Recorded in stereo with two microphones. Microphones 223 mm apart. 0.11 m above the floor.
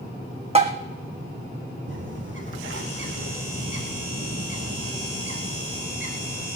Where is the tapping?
25° right (ahead or behind), 1.3 m.